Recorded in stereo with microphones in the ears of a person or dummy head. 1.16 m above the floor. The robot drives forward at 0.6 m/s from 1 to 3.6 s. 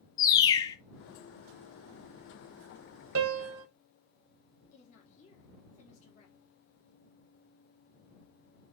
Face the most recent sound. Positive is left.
turn(degrees=40)  # may be behind; listen again after turning